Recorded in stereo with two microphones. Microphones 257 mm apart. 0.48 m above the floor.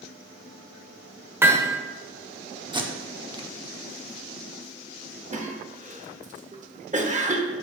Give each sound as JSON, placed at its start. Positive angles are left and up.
{"t": 1.4, "sound": "hammering", "side_deg": -10, "distance_m": 1.0}
{"t": 2.7, "sound": "tape being pulled", "side_deg": -20, "distance_m": 0.8}
{"t": 5.3, "sound": "a cough", "side_deg": -30, "distance_m": 1.0}